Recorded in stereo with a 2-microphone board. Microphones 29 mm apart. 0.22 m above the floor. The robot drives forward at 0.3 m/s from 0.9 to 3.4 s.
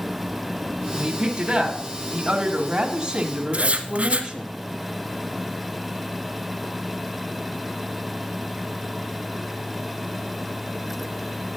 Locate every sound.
0.9 s a woman speaking: 15° right (ahead or behind), 1.6 m
3.5 s writing: 45° right (ahead or behind), 1.4 m